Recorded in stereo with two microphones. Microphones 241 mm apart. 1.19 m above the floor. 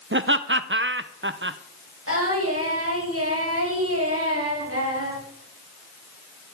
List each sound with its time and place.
0.1 s laughter: 50° right (ahead or behind), 0.5 m
2.1 s singing: 70° right (ahead or behind), 7.5 m